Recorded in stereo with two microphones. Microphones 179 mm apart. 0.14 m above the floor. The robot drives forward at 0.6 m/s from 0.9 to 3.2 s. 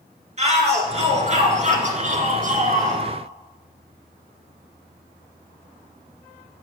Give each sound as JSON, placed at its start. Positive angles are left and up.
{"t": 0.4, "sound": "a shout", "side_deg": -40, "distance_m": 2.5}